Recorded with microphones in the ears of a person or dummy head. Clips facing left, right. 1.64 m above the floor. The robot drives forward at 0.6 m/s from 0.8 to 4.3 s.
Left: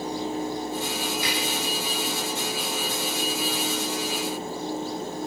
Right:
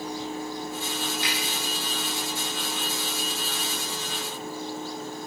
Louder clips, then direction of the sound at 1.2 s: Left 3 dB; 85° left.